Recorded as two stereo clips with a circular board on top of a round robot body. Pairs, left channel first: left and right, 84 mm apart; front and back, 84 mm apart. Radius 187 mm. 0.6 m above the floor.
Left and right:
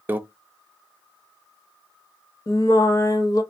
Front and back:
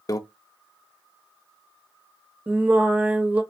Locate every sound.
0.1 s a microwave: 30° right, 0.8 m
2.5 s singing: 115° left, 1.5 m